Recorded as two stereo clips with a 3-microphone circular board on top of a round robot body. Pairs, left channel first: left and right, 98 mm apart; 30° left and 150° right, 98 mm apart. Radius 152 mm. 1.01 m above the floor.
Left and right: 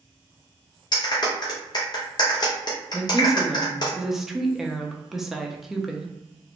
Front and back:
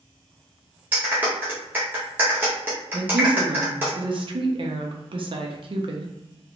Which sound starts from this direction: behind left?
A clap, at 0.9 s.